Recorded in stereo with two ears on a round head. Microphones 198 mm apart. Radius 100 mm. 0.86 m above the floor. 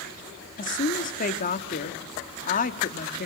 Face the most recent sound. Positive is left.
turn(degrees=40)  # may be behind; listen again after turning